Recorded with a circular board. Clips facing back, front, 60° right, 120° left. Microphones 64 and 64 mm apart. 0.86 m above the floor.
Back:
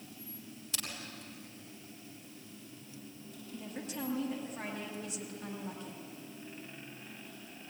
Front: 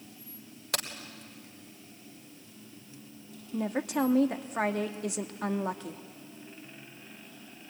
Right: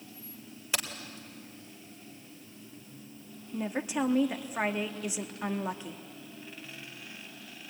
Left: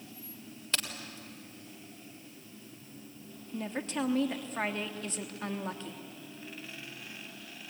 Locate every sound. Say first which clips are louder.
0.7 s a crack: front 9 dB, right 1 dB; 20° left, 3 m
3.5 s a woman speaking: front 12 dB, right 3 dB; 20° left, 1.2 m